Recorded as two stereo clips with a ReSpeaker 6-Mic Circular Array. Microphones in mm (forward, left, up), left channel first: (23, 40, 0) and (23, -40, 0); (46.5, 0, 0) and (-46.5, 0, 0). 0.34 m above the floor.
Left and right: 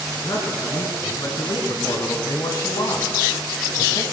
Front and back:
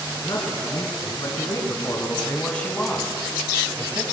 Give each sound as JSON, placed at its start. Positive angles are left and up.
{"t": 0.1, "sound": "a man speaking", "azimuth_deg": 45, "distance_m": 4.0}